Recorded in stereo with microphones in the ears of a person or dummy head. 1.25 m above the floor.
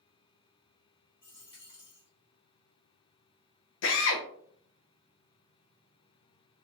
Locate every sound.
1.2 s a dropped coin: 25° left (ahead or behind), 1.0 m
3.8 s a drill: 60° left (ahead or behind), 0.7 m